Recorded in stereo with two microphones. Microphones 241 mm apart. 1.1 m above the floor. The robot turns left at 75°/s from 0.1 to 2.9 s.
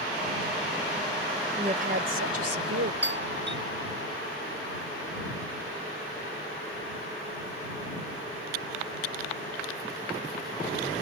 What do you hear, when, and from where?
1.6 s a woman speaking: 15° right; by 2.9 s 115° right
3.0 s a doorbell: 50° right (ahead or behind)